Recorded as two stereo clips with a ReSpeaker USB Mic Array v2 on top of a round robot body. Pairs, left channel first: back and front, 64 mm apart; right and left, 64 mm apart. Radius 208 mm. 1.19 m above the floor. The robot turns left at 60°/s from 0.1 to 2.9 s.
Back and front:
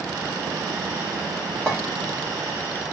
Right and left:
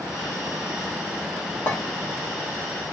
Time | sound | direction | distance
1.7 | a clink | 105° right | 0.9 m